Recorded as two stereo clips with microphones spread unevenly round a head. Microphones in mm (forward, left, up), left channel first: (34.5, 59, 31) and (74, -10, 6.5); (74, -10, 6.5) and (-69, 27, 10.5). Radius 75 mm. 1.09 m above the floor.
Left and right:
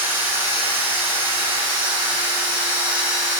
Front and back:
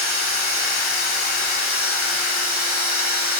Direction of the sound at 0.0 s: 15° right.